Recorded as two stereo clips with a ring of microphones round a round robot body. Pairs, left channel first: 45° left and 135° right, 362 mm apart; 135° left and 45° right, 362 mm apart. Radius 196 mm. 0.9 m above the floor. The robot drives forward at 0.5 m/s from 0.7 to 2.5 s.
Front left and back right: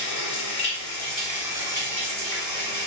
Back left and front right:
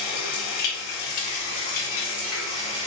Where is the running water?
120° left, 0.7 m; by 2.9 s 155° left, 1.4 m.